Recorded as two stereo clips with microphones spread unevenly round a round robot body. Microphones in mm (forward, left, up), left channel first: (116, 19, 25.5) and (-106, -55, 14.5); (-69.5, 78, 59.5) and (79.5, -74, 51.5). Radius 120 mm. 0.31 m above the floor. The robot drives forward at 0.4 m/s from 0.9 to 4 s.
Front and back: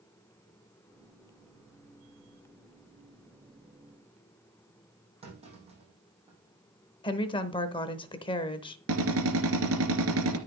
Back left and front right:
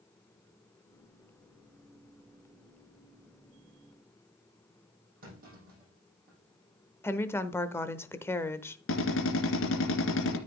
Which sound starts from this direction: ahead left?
A woman speaking, at 7.0 s.